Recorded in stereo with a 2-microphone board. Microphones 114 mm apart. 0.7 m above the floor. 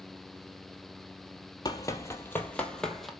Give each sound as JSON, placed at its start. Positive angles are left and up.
{"t": 1.6, "sound": "running footsteps", "side_deg": 35, "distance_m": 1.2}